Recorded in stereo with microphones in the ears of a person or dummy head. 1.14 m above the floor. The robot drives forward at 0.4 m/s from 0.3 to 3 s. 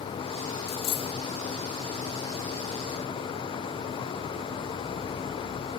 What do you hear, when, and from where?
0.7 s a dropped coin: 30° left (ahead or behind); by 1.1 s 25° left (ahead or behind)